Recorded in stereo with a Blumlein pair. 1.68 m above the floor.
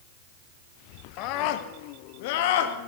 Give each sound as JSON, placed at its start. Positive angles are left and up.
{"t": 1.2, "sound": "a scream", "azimuth_deg": 40, "distance_m": 1.9}